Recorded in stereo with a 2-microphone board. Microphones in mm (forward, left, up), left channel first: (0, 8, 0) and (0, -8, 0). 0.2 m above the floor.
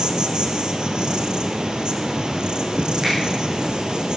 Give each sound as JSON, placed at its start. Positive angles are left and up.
{"t": 0.0, "sound": "an insect", "side_deg": -70, "distance_m": 1.6}
{"t": 3.0, "sound": "a finger snap", "side_deg": -60, "distance_m": 7.0}